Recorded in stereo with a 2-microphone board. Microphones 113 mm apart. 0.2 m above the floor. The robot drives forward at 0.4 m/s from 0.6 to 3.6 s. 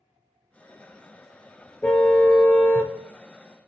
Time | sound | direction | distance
1.8 | a car horn | 15° left (ahead or behind) | 2 m